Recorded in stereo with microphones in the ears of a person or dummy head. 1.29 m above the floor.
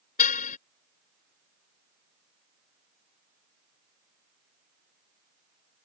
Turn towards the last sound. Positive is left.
turn(degrees=40)  # may be behind; listen again after turning